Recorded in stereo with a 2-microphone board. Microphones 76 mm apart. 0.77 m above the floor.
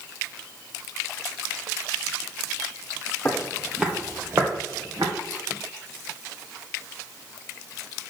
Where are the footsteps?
20° left (ahead or behind), 1.4 m; by 5.1 s 55° right (ahead or behind), 2.5 m.